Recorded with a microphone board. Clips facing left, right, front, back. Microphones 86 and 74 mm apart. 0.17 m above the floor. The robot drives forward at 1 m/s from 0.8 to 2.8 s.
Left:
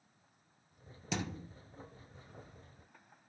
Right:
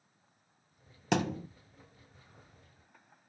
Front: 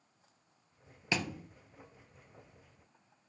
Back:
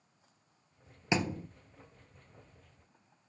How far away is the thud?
About 1.3 m.